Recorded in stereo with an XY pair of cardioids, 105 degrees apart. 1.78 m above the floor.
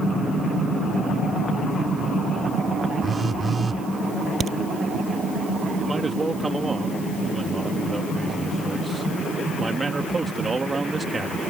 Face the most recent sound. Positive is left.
turn(degrees=-25)